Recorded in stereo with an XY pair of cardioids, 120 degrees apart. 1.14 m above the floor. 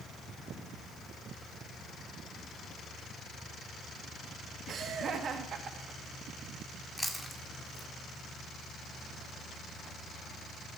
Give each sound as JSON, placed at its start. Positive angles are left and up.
{"t": 4.7, "sound": "laughter", "azimuth_deg": -45, "distance_m": 2.0}
{"t": 7.0, "sound": "chewing", "azimuth_deg": 5, "distance_m": 1.8}